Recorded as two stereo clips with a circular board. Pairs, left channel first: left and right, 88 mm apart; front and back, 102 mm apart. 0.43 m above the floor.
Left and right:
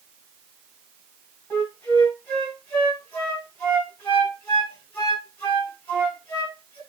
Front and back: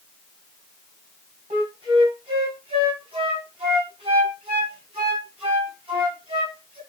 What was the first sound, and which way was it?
A flute, 160° left.